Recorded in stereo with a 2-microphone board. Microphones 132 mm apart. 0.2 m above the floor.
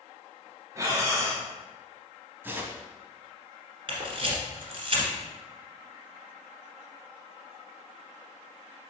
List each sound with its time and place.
0.8 s breathing: 25° right (ahead or behind), 1.0 m
2.4 s tearing paper: 15° right (ahead or behind), 0.6 m
3.9 s a camera shutter: 40° right (ahead or behind), 1.5 m